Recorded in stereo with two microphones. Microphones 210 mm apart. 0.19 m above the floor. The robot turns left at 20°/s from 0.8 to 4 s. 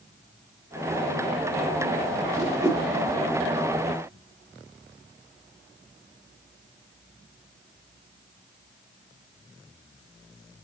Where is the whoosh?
15° right (ahead or behind), 3.5 m; by 2.8 s 20° right (ahead or behind), 3.5 m.